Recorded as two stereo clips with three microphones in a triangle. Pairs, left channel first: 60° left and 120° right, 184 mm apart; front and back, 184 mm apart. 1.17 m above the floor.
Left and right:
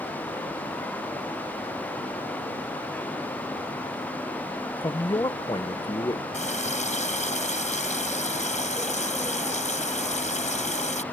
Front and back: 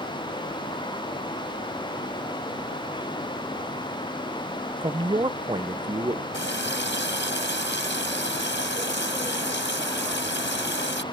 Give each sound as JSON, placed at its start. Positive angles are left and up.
{"t": 4.8, "sound": "a man speaking", "azimuth_deg": 120}
{"t": 6.3, "sound": "a running tap", "azimuth_deg": 10}